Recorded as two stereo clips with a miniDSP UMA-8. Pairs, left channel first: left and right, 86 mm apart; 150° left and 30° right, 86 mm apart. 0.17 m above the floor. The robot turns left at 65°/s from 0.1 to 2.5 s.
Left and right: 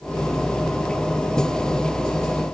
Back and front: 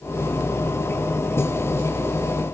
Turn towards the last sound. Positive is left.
No sound to turn to.